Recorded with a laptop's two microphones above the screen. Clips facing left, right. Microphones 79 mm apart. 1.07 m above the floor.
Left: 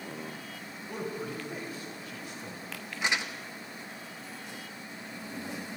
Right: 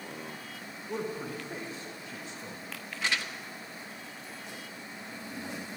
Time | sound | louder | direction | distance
0.9 | a man speaking | right 1 dB | 25° right (ahead or behind) | 1.5 m
3.0 | crumpling | left 2 dB | 20° left (ahead or behind) | 0.8 m